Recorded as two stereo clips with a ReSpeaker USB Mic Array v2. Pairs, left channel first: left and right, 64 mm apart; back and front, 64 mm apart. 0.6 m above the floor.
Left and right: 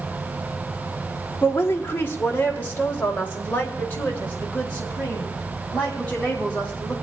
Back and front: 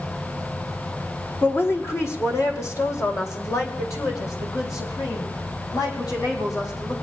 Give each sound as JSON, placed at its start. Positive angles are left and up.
{"t": 1.4, "sound": "a woman speaking", "azimuth_deg": 135, "distance_m": 1.8}